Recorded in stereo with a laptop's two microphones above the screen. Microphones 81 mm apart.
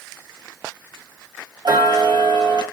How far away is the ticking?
About 0.8 m.